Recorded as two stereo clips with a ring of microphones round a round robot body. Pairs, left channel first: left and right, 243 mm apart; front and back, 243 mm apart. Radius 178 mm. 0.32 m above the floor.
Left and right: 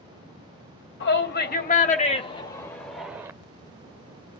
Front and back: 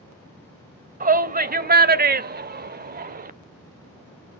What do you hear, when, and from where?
1.0 s a shout: 130° left, 1.5 m; by 3.3 s 160° right, 1.0 m